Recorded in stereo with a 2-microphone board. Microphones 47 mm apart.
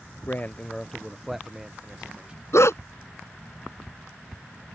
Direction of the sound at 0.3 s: 45° left (ahead or behind).